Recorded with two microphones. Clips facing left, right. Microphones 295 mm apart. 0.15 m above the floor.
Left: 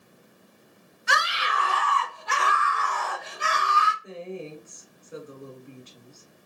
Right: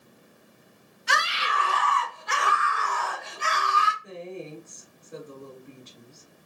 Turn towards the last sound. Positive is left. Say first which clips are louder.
# left 1 dB
turn(degrees=10)  # may be behind; listen again after turning